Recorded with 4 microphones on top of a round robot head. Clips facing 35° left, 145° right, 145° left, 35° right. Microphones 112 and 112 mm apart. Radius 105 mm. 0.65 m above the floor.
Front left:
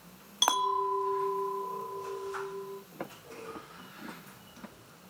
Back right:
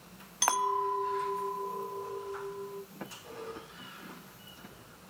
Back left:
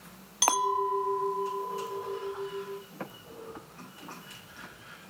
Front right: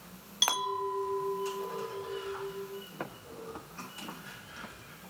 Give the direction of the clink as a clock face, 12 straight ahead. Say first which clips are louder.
Front left 1 dB, back left 6 dB; 8 o'clock.